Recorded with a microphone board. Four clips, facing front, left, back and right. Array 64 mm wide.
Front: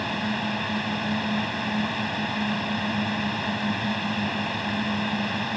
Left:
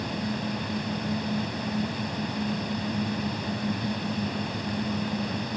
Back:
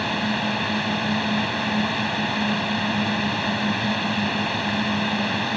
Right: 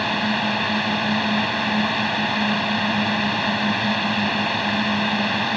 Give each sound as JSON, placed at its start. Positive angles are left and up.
{"t": 0.0, "sound": "a drone", "azimuth_deg": -105}